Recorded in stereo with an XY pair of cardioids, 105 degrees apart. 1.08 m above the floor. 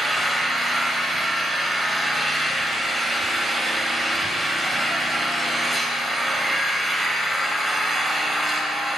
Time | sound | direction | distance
0.0 | an engine running | 15° right | 2.5 m